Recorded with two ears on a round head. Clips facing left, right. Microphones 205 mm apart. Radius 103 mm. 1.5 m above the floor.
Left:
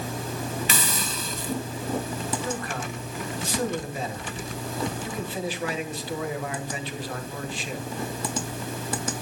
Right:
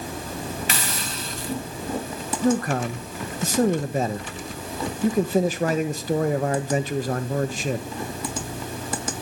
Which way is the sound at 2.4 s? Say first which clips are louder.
Right 10 dB; 40° right (ahead or behind).